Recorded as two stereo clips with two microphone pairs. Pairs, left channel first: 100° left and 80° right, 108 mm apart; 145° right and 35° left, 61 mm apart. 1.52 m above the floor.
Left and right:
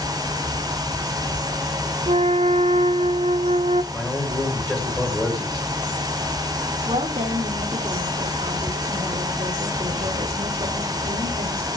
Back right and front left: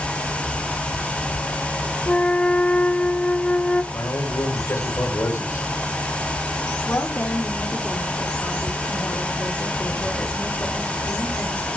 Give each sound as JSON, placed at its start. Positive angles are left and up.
{"t": 2.1, "sound": "a flute", "azimuth_deg": -75, "distance_m": 0.5}
{"t": 3.9, "sound": "a man speaking", "azimuth_deg": -175, "distance_m": 6.0}
{"t": 6.8, "sound": "a woman speaking", "azimuth_deg": -100, "distance_m": 3.5}